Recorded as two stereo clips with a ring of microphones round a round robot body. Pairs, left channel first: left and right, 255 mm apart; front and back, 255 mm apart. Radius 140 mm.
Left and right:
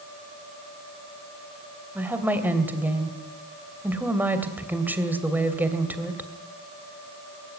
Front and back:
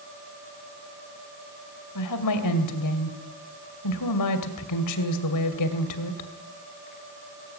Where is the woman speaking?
5° right, 2.5 m.